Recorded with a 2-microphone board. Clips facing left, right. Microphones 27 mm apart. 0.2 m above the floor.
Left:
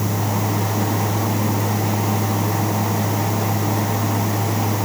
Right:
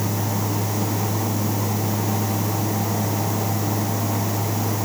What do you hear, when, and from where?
Only background noise.